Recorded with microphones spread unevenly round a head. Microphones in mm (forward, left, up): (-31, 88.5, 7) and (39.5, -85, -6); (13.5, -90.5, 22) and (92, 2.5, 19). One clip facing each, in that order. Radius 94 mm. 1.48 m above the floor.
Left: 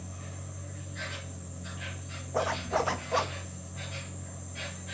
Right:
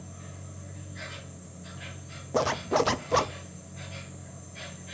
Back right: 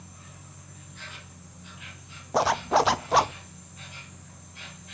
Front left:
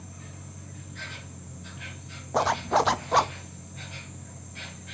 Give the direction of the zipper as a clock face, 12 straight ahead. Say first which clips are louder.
Right 4 dB, back right 1 dB; 1 o'clock.